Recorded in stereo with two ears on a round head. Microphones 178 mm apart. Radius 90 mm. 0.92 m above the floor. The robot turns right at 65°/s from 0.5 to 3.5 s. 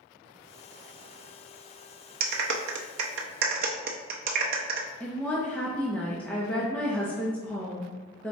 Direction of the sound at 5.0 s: 5° left (ahead or behind).